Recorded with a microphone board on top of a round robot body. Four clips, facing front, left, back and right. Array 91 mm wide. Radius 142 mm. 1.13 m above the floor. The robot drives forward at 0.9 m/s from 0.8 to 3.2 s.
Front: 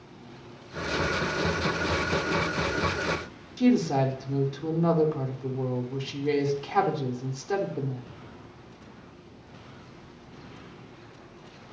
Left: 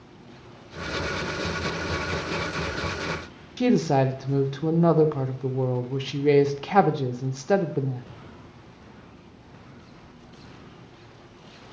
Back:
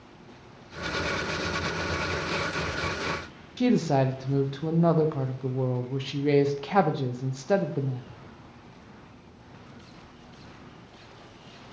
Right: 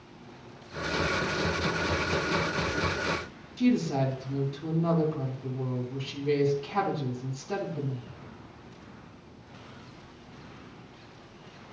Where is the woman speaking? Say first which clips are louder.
Left 5 dB, front 1 dB; 105° left, 0.9 m.